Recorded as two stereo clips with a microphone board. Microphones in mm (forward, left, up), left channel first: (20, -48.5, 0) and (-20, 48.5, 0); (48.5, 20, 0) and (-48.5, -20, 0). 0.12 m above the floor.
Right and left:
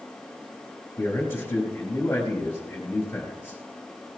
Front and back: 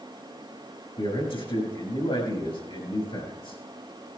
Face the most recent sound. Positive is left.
turn(degrees=0)